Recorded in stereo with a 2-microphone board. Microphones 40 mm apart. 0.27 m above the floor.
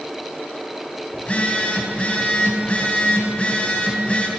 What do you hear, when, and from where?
1.1 s a phone buzzing: 30° left (ahead or behind), 1.1 m